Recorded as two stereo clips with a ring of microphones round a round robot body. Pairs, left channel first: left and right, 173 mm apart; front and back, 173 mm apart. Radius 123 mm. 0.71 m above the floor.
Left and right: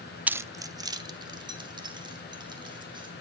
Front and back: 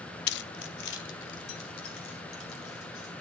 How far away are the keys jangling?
About 0.5 m.